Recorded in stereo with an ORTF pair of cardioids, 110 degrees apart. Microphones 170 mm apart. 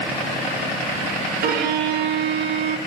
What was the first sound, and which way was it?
A violin, 60° right.